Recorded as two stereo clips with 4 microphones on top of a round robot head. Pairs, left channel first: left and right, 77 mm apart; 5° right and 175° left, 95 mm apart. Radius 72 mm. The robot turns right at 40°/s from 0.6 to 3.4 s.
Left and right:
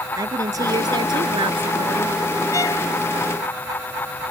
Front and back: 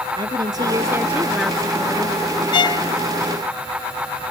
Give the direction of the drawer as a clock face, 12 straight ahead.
No drawer in this recording.